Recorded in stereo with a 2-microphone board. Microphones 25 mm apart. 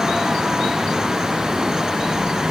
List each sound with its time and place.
Only background noise.